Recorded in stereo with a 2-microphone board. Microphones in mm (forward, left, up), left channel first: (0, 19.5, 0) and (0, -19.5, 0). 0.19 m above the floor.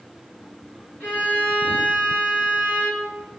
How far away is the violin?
About 2 m.